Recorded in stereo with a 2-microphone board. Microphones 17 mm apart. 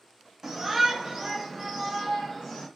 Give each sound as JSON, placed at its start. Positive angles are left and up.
{"t": 0.4, "sound": "a shout", "side_deg": -30, "distance_m": 1.0}